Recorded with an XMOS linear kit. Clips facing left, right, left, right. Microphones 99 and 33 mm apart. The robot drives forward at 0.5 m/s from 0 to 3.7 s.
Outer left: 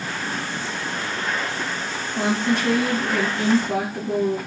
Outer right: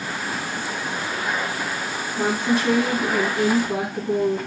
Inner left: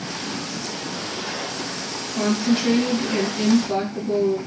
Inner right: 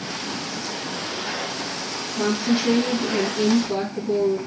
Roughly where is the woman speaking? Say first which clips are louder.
Even, inner left 1 dB; left.